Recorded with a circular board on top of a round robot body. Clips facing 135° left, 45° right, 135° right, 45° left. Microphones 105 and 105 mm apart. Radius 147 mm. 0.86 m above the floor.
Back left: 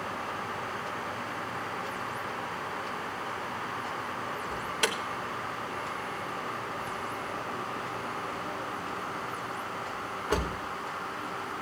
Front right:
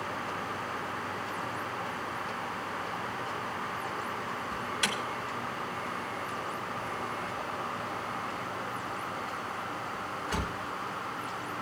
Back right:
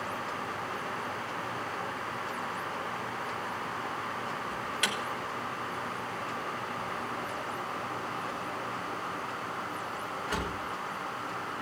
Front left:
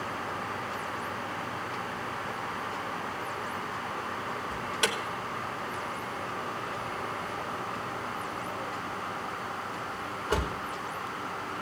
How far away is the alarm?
About 3.5 m.